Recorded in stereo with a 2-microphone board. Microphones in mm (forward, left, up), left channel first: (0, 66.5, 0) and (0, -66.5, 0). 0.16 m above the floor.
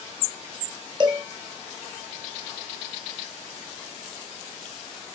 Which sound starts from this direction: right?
A cowbell, at 1.0 s.